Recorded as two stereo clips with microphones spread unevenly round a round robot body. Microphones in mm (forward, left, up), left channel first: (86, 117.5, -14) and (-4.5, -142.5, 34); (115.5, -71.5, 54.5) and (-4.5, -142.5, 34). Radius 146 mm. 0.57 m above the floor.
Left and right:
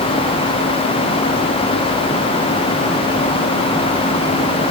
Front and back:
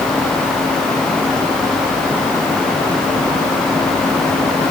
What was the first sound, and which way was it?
Only background noise.